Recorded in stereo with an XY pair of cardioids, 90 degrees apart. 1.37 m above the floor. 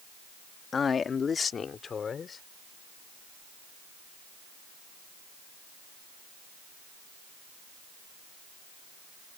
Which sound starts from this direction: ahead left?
A man speaking, at 0.7 s.